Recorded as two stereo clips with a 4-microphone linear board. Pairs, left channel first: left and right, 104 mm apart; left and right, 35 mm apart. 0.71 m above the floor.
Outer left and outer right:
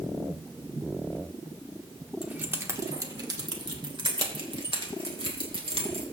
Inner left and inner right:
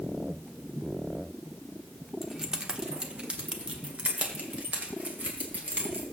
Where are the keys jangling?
15° right (ahead or behind), 0.9 m; by 6.0 s 65° right (ahead or behind), 2.5 m.